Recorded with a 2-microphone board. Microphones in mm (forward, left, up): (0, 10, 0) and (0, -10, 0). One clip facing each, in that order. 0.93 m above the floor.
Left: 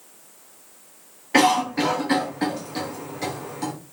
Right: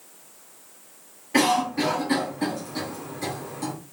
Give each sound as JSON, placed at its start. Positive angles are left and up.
{"t": 1.3, "sound": "a cough", "side_deg": 30, "distance_m": 1.2}